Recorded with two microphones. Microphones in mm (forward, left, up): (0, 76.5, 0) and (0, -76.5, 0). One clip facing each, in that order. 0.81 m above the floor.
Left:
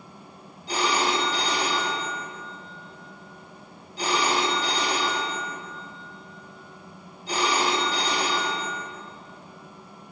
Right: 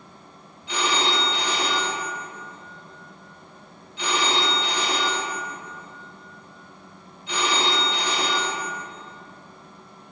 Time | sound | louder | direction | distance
0.7 | a phone ringing | left 1 dB | 40° left (ahead or behind) | 0.6 m